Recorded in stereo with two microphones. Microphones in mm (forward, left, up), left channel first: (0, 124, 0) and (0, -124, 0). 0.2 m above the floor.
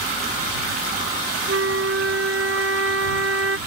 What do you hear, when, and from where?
1.5 s a flute: 65° right (ahead or behind)